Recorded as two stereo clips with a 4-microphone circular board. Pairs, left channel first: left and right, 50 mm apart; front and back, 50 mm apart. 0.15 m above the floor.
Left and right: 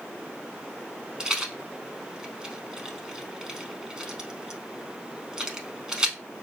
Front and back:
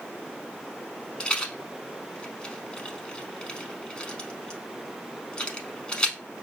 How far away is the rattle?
About 0.6 m.